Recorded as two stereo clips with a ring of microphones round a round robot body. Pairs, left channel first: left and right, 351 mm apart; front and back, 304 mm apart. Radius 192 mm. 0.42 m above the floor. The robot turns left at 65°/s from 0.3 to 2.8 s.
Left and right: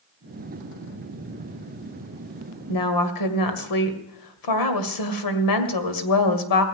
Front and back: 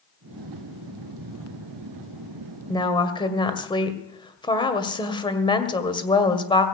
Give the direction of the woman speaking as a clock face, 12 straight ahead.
9 o'clock.